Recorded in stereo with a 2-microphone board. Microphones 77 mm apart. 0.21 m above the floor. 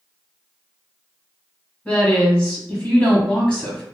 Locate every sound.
1.9 s a woman speaking: 15° left (ahead or behind), 1.2 m